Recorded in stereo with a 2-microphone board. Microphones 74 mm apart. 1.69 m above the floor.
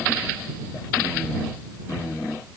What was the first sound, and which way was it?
Only background noise.